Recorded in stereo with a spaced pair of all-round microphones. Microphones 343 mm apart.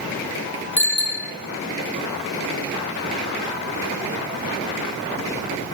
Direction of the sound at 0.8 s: 5° left (ahead or behind).